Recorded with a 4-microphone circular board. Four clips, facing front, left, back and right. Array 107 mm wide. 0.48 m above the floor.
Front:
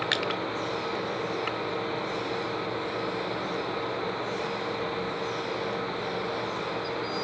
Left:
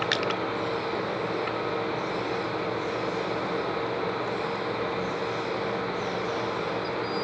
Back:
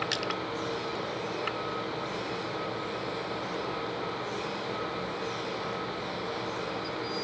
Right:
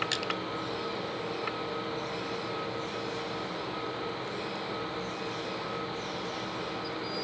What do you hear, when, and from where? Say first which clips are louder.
0.1 s crushing: left 6 dB, front 3 dB; 55° left, 1.2 m